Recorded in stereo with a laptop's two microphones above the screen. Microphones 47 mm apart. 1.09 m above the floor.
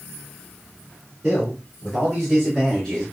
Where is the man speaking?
15° right (ahead or behind), 3 m; by 3.0 s 5° left (ahead or behind), 2.5 m.